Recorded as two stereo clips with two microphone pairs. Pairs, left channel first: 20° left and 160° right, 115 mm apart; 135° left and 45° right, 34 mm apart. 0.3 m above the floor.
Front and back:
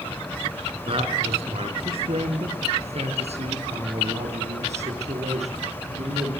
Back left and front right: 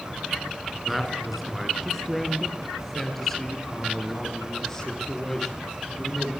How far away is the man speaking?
About 4.5 m.